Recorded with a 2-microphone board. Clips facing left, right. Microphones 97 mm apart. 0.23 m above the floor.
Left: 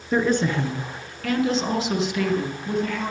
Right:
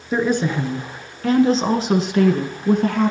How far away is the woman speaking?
About 2.5 m.